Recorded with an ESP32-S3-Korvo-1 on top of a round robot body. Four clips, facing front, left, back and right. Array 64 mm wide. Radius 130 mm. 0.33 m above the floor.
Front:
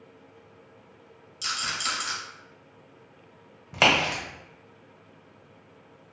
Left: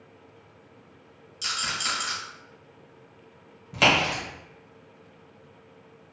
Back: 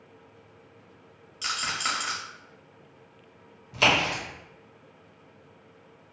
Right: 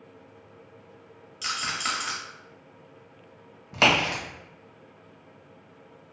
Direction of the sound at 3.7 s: 15° right.